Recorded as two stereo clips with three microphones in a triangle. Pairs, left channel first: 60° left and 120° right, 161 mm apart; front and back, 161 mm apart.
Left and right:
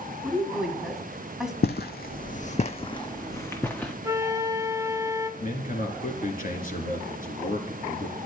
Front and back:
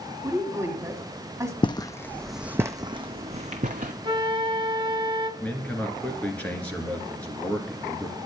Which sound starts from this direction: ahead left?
Footsteps, at 1.6 s.